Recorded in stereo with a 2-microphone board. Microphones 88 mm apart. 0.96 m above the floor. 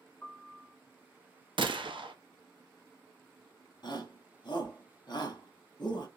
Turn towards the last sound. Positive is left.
turn(degrees=55)  # may be behind; listen again after turning